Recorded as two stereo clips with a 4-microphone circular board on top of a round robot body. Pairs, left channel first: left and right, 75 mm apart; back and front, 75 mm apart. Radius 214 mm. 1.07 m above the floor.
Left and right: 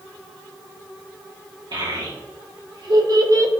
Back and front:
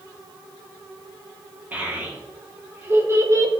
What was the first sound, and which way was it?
A child speaking, 70° right.